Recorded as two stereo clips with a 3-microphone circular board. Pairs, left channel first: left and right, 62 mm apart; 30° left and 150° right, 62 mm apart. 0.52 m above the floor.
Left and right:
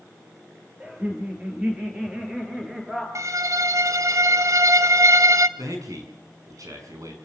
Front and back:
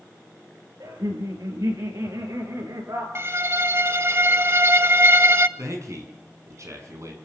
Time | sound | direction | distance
0.8 | laughter | 155° right | 8 m
3.1 | a violin | 110° right | 0.9 m
5.6 | a man speaking | 115° right | 6 m